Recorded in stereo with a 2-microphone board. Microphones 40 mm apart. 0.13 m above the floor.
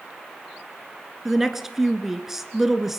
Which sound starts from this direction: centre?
A woman speaking, at 1.2 s.